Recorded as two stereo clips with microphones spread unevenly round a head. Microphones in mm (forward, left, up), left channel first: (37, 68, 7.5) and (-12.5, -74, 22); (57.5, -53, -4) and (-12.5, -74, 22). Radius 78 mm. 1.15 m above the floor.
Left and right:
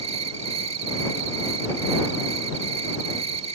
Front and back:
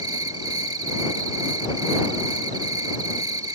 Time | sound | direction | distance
0.0 | an insect | 160° right | ?